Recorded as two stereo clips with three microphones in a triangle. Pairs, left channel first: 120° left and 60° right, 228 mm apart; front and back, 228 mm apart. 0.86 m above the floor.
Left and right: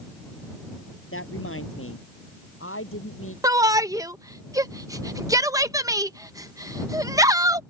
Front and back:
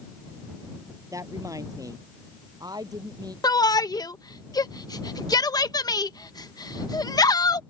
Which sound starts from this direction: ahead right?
A shout, at 3.4 s.